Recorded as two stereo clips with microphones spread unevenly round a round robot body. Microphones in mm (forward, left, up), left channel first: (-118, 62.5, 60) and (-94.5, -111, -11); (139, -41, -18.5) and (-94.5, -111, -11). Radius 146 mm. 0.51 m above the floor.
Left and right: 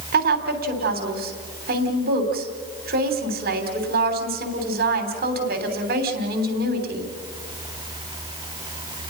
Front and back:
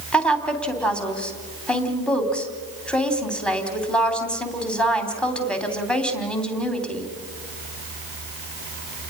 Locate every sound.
0.1 s a woman speaking: 70° right, 3 m